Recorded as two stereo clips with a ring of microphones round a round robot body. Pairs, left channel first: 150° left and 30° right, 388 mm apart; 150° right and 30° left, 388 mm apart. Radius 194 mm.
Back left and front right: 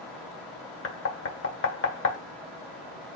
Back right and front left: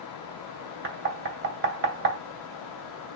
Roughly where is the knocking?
Left.